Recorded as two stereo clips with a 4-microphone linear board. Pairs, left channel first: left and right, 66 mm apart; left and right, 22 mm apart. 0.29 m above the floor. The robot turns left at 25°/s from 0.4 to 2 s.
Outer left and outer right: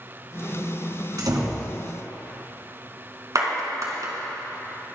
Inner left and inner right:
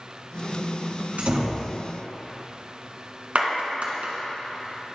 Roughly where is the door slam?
Right.